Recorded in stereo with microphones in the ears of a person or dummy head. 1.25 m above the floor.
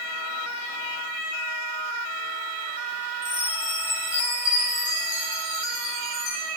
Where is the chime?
30° left (ahead or behind), 3 m.